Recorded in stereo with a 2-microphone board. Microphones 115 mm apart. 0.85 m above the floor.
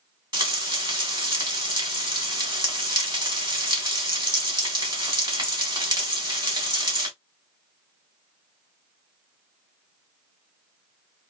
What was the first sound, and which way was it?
Frying, 40° right (ahead or behind).